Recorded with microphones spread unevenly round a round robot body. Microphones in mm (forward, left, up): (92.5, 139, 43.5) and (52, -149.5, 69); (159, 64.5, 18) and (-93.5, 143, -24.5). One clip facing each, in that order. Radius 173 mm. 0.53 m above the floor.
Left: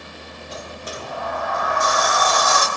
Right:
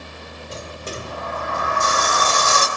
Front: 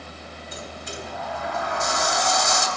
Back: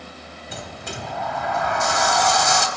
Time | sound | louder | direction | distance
0.5 | a sliding door | right 1 dB, back 2 dB | 165° right | 3 m